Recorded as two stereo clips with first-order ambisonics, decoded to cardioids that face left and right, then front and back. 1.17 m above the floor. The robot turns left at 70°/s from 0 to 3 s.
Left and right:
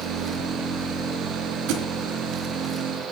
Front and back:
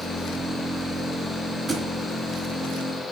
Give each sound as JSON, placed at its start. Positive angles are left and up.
{"t": 1.7, "sound": "a thud", "azimuth_deg": -110, "distance_m": 3.0}